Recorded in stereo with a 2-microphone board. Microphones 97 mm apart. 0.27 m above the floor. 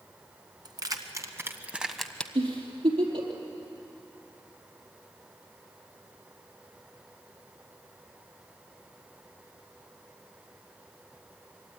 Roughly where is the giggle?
Right.